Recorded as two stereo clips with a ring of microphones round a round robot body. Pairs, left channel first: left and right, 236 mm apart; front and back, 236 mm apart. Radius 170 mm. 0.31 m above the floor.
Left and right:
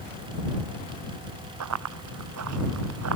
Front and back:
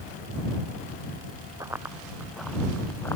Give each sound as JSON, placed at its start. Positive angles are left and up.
{"t": 1.6, "sound": "running footsteps", "azimuth_deg": -100}